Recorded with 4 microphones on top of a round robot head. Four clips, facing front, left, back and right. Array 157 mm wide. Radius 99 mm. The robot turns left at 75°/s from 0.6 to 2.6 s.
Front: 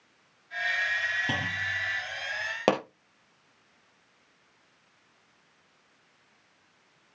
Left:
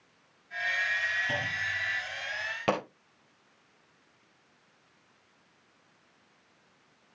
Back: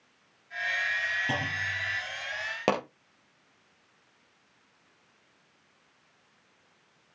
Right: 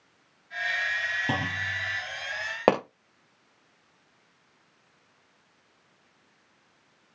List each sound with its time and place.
1.3 s a clunk: 75° right, 1.3 m; by 2.0 s 125° right, 1.3 m
2.7 s a pop: 80° right, 2.0 m